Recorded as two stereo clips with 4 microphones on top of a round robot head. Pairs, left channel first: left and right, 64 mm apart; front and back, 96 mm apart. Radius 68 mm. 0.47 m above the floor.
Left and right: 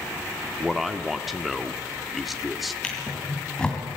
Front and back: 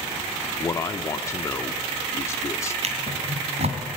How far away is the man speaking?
About 1.0 m.